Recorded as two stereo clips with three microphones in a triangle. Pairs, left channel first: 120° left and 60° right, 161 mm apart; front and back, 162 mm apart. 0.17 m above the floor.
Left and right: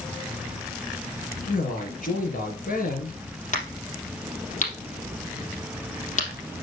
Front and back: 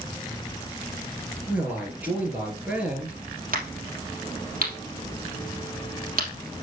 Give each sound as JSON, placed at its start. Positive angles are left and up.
{"t": 1.4, "sound": "a man speaking", "azimuth_deg": 100, "distance_m": 3.0}
{"t": 3.5, "sound": "a crack", "azimuth_deg": 160, "distance_m": 3.0}